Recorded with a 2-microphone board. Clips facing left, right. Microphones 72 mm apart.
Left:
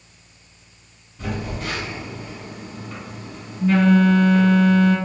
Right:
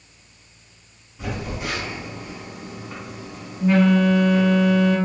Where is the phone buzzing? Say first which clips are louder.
Left 1 dB; 15° right (ahead or behind), 1.4 m.